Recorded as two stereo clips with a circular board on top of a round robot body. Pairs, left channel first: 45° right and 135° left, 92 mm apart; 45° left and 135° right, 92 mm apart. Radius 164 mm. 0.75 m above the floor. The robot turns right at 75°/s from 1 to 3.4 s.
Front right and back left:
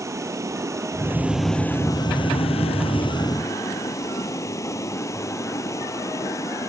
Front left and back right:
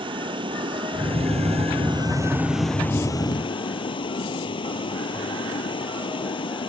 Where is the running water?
165° right; by 6.7 s 15° left.